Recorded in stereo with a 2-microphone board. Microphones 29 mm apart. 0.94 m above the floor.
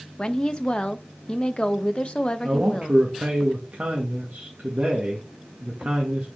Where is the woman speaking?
40° left (ahead or behind), 0.7 m.